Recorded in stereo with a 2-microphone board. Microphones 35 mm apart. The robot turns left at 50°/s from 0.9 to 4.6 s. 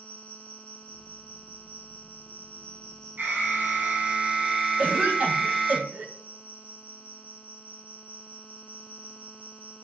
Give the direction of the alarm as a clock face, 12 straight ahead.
3 o'clock.